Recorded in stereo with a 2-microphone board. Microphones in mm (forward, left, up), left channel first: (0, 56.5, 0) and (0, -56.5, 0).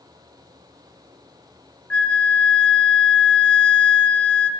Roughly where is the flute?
Centre.